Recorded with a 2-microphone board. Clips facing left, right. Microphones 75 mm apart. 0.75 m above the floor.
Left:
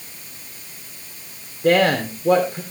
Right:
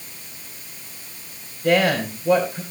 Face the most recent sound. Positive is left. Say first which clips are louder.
# left 2 dB
turn(degrees=50)  # may be behind; listen again after turning